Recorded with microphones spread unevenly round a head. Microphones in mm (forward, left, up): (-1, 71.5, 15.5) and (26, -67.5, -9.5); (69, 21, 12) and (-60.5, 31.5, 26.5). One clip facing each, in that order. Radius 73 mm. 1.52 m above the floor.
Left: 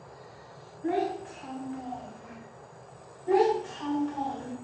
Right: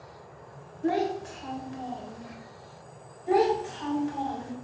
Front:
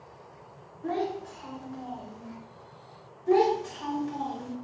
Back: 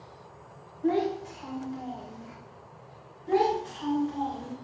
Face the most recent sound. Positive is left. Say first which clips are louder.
# even, front 2 dB
turn(degrees=5)